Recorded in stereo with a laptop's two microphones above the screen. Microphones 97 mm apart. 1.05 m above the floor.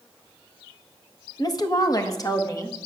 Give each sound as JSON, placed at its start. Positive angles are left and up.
{"t": 1.4, "sound": "a woman speaking", "side_deg": 40, "distance_m": 1.2}